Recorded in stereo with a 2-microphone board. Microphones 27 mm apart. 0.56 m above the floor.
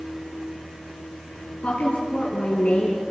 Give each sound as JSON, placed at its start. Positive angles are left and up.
{"t": 1.6, "sound": "a woman speaking", "side_deg": 55, "distance_m": 7.0}